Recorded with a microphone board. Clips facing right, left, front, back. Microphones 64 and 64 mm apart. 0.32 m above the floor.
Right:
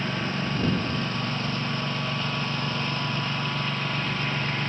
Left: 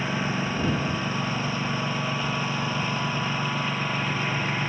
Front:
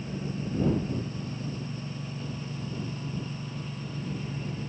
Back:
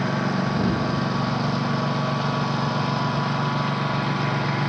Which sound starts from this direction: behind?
A lawn mower, at 0.0 s.